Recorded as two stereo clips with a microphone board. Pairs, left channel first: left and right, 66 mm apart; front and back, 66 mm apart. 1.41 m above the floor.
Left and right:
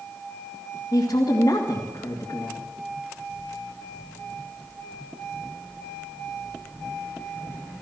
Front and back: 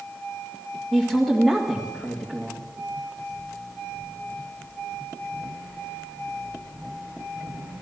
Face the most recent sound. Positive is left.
turn(degrees=90)